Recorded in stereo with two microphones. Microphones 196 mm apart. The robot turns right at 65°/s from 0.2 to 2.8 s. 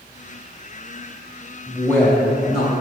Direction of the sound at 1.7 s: 5° left (ahead or behind).